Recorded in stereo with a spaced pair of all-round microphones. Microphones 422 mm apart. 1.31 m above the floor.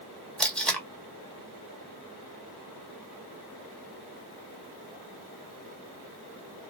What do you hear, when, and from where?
0.4 s tape being pulled: 5° left (ahead or behind), 1.0 m